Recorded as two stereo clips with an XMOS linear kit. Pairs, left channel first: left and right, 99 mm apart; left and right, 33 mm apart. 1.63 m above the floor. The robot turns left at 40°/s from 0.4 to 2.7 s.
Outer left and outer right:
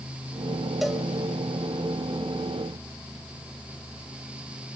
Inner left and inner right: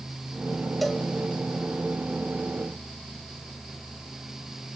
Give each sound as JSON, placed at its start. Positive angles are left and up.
{"t": 0.8, "sound": "a cowbell", "side_deg": 0, "distance_m": 1.1}